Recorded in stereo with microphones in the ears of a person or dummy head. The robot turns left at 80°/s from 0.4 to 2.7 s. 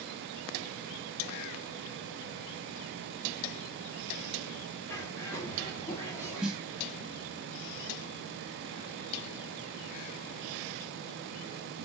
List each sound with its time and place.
4.9 s a bird: 15° left (ahead or behind), 0.9 m
6.4 s a snare drum: 5° right (ahead or behind), 1.1 m